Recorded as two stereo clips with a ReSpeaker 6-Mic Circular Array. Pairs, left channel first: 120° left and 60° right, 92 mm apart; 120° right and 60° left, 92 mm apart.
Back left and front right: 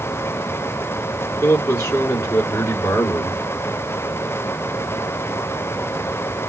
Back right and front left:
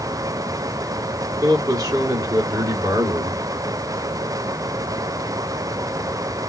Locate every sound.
1.4 s a man speaking: 75° left, 2.5 m